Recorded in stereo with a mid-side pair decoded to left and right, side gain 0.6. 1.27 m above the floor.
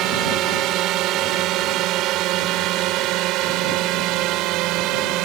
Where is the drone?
65° right; by 5.3 s 70° right.